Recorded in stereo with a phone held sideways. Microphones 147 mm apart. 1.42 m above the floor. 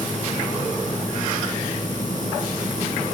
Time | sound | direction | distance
0.0 | a machine running | 60° right (ahead or behind) | 7 m